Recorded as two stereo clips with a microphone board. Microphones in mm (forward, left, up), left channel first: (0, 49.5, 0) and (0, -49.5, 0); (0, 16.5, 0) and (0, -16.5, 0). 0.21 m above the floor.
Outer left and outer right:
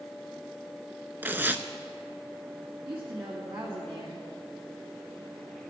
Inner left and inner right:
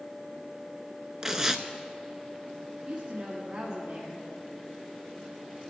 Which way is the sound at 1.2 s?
20° right (ahead or behind).